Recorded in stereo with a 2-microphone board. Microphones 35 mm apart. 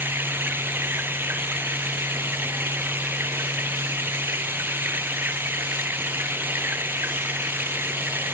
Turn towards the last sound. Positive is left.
turn(degrees=-80)